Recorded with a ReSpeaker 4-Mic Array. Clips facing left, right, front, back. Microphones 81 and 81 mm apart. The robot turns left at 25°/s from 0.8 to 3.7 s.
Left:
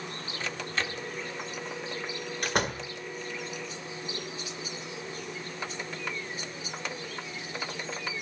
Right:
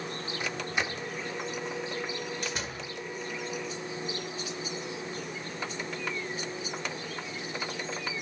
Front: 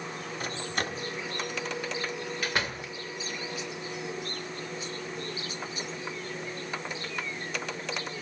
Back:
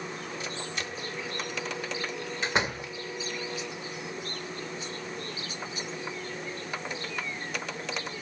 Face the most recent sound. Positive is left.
turn(degrees=85)